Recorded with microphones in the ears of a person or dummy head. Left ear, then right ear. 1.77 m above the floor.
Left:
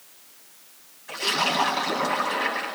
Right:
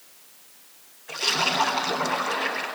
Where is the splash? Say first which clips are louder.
Even; 5° left (ahead or behind), 9.5 m.